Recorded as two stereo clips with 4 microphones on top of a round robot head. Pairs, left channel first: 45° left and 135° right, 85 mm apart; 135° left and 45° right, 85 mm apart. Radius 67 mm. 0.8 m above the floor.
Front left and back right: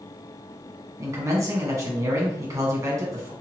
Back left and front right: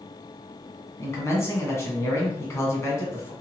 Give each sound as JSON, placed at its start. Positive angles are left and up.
{"t": 1.0, "sound": "a man speaking", "azimuth_deg": 180, "distance_m": 1.2}